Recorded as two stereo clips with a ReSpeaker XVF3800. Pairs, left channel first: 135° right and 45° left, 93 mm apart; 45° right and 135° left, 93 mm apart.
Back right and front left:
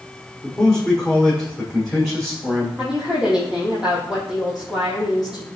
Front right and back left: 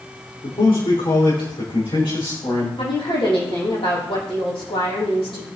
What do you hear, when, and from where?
0.4 s a man speaking: 50° right, 5.5 m
2.8 s a woman speaking: 35° right, 5.5 m